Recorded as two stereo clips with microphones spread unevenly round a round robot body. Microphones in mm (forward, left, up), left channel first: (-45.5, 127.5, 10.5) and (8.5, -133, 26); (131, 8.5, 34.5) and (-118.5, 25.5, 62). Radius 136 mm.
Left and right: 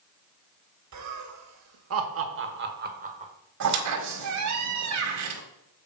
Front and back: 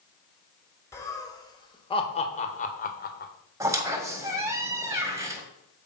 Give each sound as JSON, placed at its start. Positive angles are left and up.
{"t": 0.9, "sound": "laughter", "azimuth_deg": -80, "distance_m": 1.9}
{"t": 3.6, "sound": "a squeak", "azimuth_deg": -105, "distance_m": 1.4}